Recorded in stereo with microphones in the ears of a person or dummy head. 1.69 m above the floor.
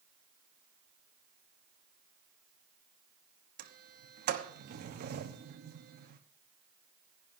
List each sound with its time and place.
3.6 s a sliding door: 50° right (ahead or behind), 1.0 m